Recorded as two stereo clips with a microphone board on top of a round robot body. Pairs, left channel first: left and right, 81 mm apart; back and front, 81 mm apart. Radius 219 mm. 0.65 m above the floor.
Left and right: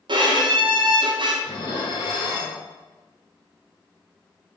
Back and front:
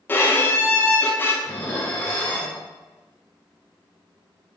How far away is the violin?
About 0.7 m.